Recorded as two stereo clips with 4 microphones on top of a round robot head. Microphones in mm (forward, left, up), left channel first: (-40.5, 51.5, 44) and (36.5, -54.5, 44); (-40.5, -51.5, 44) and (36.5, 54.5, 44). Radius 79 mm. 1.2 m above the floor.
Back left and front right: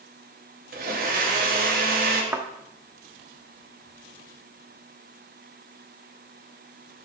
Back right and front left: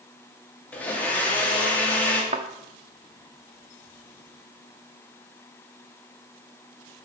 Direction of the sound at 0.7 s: 45° right.